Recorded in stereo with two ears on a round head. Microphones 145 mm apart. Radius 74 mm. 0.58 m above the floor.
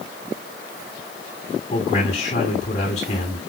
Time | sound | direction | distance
1.7 | a man speaking | 40° left (ahead or behind) | 5.5 m